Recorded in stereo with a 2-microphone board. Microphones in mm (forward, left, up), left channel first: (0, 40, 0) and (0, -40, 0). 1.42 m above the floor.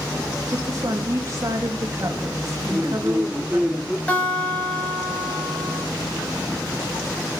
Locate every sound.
0.5 s a woman speaking: 45° right (ahead or behind), 2.5 m
2.7 s a man speaking: 5° right (ahead or behind), 0.9 m
4.1 s a guitar: 20° left (ahead or behind), 8 m